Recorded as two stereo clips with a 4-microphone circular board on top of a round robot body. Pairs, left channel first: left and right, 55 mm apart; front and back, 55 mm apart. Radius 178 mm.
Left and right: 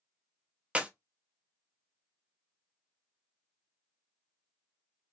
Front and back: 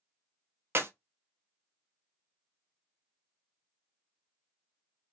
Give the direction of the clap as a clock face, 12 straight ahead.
5 o'clock.